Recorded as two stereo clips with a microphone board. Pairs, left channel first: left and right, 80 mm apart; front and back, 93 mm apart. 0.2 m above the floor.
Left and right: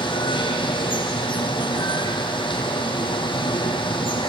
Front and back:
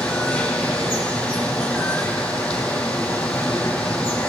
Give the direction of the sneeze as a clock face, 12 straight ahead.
No sneeze in this recording.